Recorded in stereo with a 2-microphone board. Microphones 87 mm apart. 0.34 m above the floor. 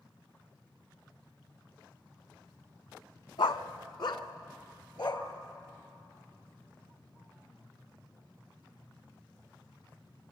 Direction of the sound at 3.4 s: 70° left (ahead or behind).